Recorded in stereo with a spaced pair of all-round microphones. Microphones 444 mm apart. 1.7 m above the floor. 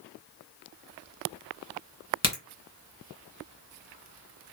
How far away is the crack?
About 1.8 m.